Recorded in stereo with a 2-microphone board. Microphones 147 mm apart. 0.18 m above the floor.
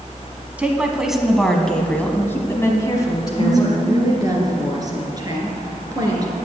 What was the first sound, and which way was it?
A woman speaking, 10° right (ahead or behind).